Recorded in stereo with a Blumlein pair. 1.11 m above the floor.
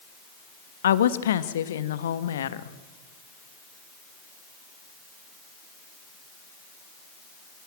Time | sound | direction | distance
0.8 | a woman speaking | 65° left | 1.3 m